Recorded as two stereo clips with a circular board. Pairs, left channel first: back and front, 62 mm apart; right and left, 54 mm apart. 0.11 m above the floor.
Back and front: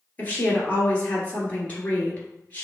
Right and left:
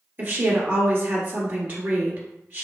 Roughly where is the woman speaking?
Behind left.